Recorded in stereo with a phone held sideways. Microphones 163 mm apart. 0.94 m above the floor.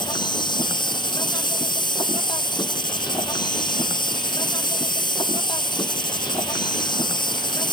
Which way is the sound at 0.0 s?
30° left (ahead or behind).